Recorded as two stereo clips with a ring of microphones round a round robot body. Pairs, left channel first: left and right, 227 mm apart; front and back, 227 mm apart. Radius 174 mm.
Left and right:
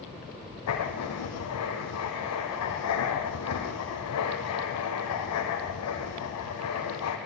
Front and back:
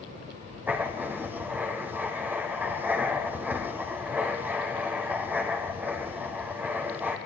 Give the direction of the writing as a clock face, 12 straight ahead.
9 o'clock.